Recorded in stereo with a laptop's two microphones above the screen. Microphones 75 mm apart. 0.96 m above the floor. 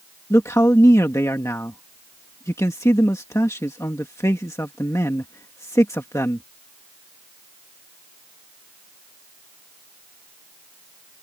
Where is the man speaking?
40° left (ahead or behind).